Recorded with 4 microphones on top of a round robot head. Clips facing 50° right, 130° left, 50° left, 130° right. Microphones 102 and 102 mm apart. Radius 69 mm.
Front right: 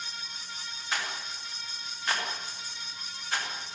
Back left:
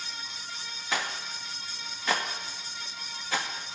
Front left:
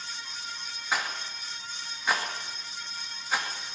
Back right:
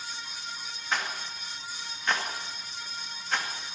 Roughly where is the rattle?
Behind left.